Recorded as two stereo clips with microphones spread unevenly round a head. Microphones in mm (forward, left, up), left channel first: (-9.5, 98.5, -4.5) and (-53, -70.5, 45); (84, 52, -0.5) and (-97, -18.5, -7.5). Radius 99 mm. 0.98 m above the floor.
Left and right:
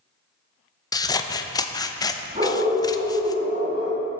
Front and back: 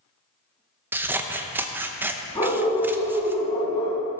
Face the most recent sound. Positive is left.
turn(degrees=-45)